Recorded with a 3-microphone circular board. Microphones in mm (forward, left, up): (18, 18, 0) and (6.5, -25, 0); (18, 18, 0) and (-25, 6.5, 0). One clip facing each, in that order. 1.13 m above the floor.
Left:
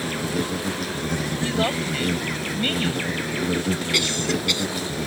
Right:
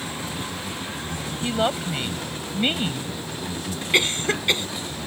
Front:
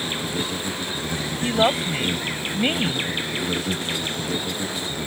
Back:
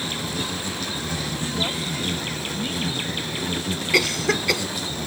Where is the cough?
170° right.